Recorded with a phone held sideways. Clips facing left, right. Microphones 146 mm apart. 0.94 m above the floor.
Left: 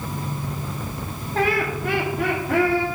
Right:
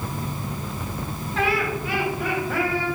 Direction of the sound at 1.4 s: 40° left (ahead or behind).